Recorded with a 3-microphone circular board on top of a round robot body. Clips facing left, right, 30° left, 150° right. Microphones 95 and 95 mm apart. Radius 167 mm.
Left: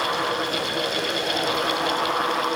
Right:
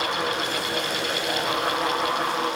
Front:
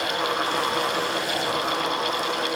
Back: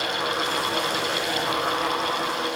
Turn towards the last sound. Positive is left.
No sound to turn to.